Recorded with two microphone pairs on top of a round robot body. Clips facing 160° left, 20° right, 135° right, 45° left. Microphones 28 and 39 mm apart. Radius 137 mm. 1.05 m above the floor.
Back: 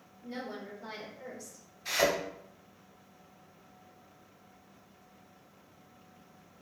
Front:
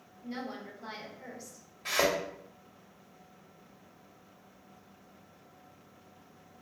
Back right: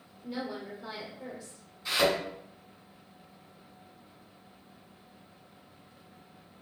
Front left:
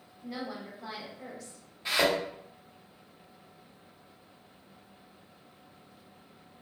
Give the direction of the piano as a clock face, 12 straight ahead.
I don't hear a piano.